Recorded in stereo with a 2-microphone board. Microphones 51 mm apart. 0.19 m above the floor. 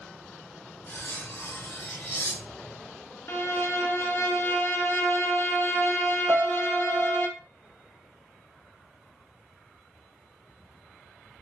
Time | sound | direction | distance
0.9 | cutlery clinking | 55° left (ahead or behind) | 1.2 m
3.3 | a violin | 60° left (ahead or behind) | 0.6 m
6.3 | a piano | 60° right (ahead or behind) | 1.0 m